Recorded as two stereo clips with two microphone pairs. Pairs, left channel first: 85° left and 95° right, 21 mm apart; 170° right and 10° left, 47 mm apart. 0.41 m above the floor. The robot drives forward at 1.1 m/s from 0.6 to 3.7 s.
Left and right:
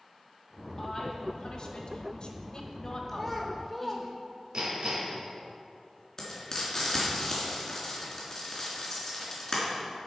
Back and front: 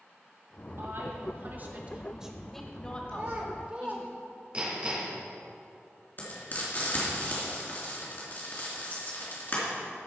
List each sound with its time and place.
0.8 s a woman speaking: 30° left, 2 m; by 4.1 s 150° left, 1.9 m
3.1 s a child speaking: straight ahead, 1.3 m
4.5 s hammering: 55° right, 2.5 m
6.2 s frying: 145° left, 3 m